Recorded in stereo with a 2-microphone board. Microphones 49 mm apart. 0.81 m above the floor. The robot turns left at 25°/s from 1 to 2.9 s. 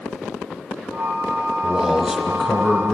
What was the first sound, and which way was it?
A man speaking, 150° right.